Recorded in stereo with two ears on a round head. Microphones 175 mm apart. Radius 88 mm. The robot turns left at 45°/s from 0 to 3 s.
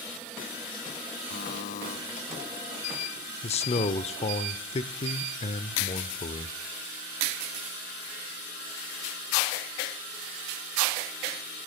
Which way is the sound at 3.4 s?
35° left (ahead or behind).